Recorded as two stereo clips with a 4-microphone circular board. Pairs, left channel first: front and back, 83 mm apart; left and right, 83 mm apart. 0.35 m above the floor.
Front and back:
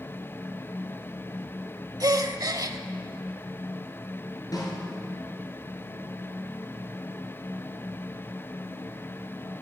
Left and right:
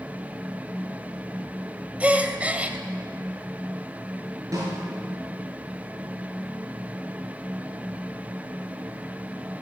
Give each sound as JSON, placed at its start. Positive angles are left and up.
{"t": 2.0, "sound": "a gasp", "azimuth_deg": -160, "distance_m": 0.9}
{"t": 4.5, "sound": "a snare drum", "azimuth_deg": -45, "distance_m": 5.5}